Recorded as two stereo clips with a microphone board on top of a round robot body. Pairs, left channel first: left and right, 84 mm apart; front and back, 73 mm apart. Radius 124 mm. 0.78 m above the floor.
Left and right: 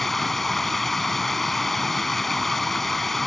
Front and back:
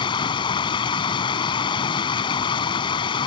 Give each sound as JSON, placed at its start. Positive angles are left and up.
{"t": 0.0, "sound": "running water", "azimuth_deg": 5}